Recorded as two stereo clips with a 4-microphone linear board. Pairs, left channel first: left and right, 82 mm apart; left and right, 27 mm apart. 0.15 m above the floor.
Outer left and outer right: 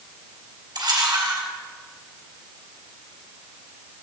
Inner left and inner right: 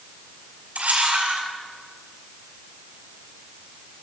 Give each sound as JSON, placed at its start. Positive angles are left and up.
{"t": 0.8, "sound": "a camera shutter", "side_deg": -60, "distance_m": 3.0}